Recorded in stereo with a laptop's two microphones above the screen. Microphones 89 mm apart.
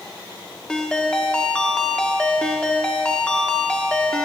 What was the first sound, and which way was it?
A ringtone, 10° left (ahead or behind).